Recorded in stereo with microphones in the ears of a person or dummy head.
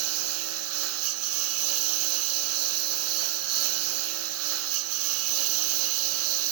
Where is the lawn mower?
85° right.